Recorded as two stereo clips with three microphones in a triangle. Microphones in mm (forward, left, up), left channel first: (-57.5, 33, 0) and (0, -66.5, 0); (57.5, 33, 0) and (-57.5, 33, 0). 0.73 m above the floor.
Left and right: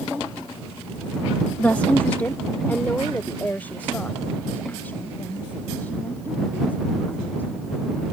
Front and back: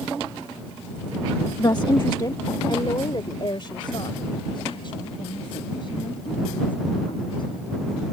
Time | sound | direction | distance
1.6 | a woman speaking | 50° left | ?